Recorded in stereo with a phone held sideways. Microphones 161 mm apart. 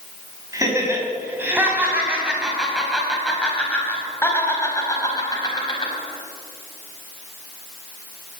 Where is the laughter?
20° right (ahead or behind), 5.5 m; by 5.9 s 30° left (ahead or behind), 5 m.